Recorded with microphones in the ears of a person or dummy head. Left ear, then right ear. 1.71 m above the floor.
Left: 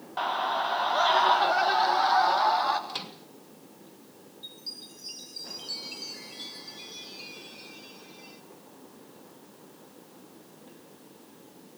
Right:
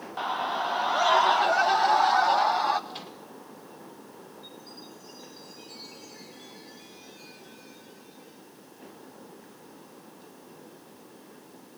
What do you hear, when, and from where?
0.2 s a scream: 5° right (ahead or behind), 0.5 m; by 2.8 s 15° right (ahead or behind), 3 m
2.9 s a microwave: 20° left (ahead or behind), 2.5 m
4.4 s a chime: 40° left (ahead or behind), 8.5 m